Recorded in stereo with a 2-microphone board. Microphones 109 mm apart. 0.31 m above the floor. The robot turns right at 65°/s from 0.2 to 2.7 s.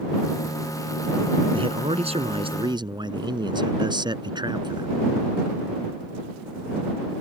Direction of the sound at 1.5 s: 125° right.